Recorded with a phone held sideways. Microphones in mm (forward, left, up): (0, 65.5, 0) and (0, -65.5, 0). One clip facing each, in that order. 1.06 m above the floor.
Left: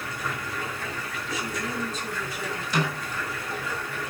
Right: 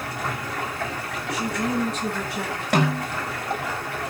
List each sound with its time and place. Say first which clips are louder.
0.0 s running water: right 3 dB; 80° right, 5.5 m
1.3 s a woman speaking: right 7 dB; 80° right, 9 m
2.7 s a snare drum: right 7 dB; 70° right (ahead or behind), 7 m